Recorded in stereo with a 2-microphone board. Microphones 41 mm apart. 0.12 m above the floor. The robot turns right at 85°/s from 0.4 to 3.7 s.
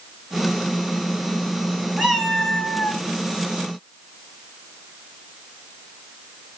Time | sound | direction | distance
2.0 | a cat meowing | 20° right | 1.0 m